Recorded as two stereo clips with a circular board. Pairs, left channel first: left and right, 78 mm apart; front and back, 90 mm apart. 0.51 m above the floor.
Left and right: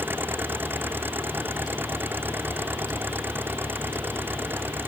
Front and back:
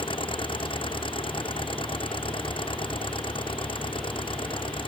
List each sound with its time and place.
0.0 s an engine running: 25° right